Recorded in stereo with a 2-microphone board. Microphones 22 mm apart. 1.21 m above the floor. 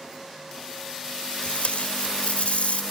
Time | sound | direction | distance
1.4 | tape being pulled | 75° left (ahead or behind) | ?